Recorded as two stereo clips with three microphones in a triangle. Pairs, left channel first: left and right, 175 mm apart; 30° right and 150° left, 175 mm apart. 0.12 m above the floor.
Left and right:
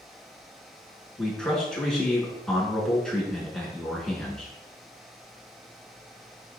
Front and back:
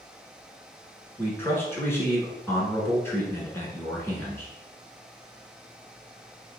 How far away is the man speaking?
About 1.2 m.